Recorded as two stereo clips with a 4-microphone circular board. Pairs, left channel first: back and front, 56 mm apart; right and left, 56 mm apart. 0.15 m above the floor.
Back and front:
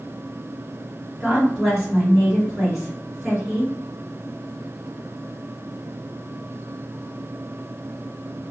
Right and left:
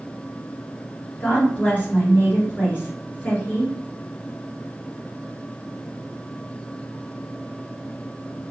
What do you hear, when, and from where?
1.2 s a woman speaking: 75° right, 1.8 m